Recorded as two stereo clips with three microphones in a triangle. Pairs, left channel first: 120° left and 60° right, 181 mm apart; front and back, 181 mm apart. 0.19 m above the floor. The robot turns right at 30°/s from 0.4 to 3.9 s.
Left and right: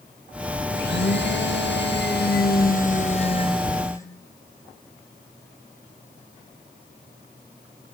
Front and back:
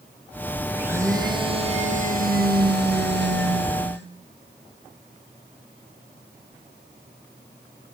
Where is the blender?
95° left, 2.5 m; by 4.1 s 165° right, 2.5 m.